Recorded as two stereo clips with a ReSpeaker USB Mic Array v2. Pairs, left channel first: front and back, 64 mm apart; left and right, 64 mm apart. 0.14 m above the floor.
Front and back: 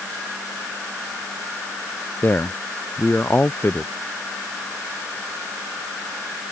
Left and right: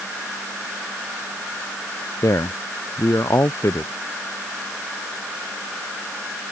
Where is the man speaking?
55° left.